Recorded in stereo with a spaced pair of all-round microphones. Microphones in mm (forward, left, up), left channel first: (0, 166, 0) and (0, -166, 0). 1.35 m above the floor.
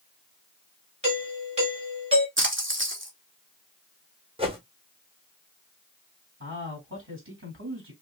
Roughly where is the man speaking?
Right.